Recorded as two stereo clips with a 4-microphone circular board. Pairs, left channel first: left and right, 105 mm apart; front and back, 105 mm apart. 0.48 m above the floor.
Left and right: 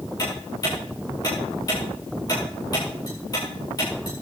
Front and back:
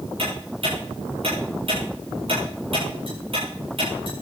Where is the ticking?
145° left, 9 m.